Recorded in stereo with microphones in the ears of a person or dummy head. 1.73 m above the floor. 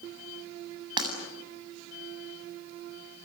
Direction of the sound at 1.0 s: 20° right (ahead or behind).